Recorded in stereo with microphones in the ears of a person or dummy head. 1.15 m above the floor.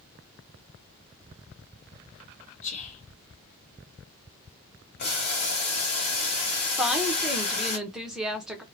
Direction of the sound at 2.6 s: 40° left (ahead or behind).